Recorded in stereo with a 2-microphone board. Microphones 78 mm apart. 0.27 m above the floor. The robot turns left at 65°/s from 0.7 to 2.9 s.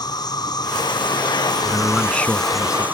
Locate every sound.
0.0 s an insect: 120° left; by 3.0 s 25° right
1.6 s a man speaking: 160° right; by 2.9 s 120° left